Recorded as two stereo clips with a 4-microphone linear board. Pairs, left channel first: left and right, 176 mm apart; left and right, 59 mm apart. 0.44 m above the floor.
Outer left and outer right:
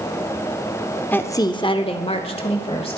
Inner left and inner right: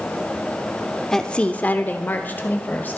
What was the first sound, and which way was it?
A woman speaking, 10° left (ahead or behind).